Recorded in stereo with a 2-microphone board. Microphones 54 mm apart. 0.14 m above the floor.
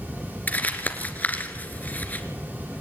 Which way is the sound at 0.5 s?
35° left (ahead or behind).